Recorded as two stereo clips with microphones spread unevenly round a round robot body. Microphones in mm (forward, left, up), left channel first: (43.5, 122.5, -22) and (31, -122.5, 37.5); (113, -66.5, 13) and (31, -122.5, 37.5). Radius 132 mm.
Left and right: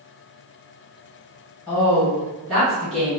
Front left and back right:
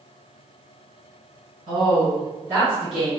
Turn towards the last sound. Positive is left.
turn(degrees=40)